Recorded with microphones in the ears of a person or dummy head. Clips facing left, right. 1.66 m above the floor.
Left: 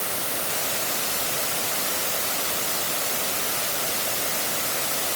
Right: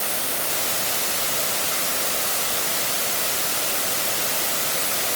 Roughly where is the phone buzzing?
I don't hear a phone buzzing.